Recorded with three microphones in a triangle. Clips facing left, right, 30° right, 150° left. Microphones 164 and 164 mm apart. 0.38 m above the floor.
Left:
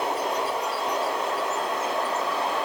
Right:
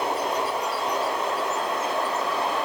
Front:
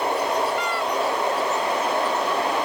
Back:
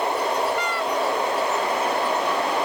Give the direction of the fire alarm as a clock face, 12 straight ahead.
No fire alarm in this recording.